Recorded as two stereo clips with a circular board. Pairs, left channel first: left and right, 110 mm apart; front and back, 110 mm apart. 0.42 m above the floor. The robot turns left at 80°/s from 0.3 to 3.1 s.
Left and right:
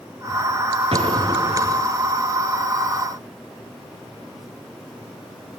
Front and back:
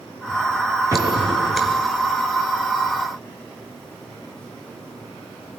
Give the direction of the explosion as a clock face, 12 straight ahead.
4 o'clock.